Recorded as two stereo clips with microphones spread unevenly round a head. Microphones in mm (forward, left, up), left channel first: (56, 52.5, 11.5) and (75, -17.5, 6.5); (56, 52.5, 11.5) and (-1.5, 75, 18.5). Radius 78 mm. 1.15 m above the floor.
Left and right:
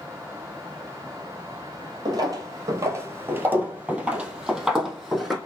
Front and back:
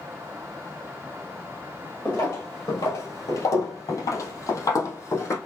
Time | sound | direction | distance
2.0 | footsteps | 85° right | 1.5 m